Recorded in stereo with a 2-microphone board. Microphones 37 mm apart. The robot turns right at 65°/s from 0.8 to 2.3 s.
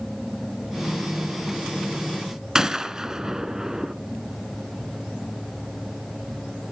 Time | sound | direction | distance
2.5 | a gunshot | 15° right (ahead or behind) | 0.6 m